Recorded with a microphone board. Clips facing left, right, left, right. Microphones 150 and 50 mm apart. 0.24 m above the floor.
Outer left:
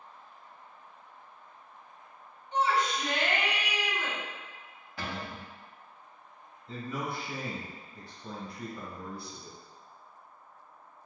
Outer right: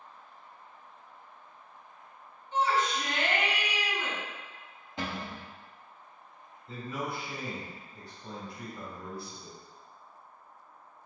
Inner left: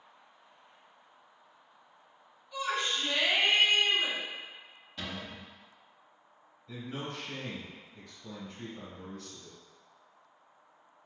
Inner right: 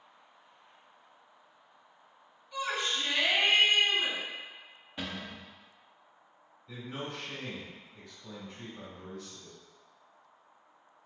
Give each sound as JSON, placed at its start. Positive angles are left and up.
{"t": 2.5, "sound": "a shout", "side_deg": -5, "distance_m": 1.7}
{"t": 5.0, "sound": "a cupboard door", "side_deg": -20, "distance_m": 0.7}
{"t": 6.7, "sound": "a man speaking", "side_deg": 0, "distance_m": 1.5}